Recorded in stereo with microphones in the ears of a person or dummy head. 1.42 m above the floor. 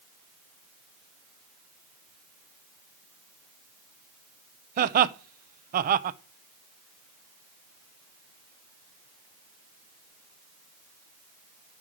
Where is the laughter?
50° right (ahead or behind), 0.6 m.